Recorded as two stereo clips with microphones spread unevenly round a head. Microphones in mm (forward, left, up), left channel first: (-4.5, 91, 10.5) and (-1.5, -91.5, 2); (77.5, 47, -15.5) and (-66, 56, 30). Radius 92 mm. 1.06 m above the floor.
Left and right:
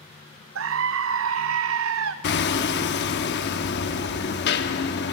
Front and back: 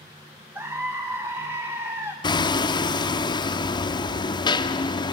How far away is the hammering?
About 1.0 m.